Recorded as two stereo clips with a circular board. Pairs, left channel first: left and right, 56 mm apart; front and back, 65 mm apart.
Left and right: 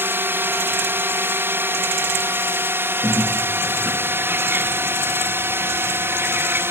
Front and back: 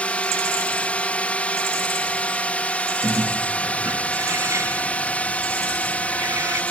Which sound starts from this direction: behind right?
A bird, at 3.0 s.